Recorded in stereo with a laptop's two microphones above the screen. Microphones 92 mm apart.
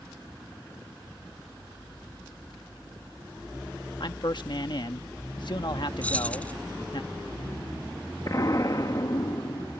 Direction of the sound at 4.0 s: 60° left (ahead or behind).